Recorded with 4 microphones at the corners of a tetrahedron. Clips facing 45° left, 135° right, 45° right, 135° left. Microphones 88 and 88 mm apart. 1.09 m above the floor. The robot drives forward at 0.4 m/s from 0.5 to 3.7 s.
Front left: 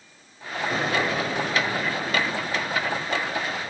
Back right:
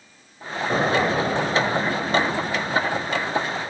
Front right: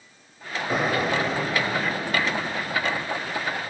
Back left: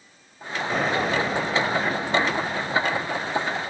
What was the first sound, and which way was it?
An explosion, 120° right.